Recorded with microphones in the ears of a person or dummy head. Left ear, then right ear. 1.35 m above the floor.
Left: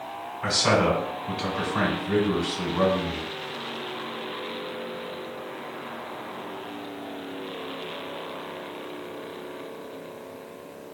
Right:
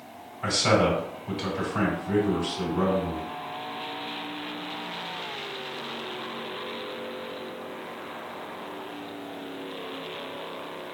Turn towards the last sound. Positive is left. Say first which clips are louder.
# left 1 dB
turn(degrees=5)  # may be behind; listen again after turning